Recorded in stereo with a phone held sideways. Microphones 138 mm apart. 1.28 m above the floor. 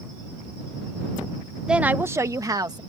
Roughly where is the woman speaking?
Centre.